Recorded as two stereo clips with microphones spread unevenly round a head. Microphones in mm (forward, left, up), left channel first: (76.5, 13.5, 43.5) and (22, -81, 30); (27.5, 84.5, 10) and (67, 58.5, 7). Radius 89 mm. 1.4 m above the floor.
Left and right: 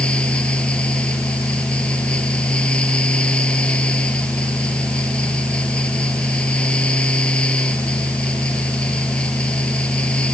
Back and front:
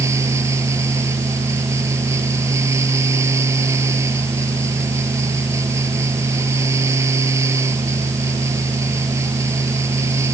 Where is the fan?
20° right.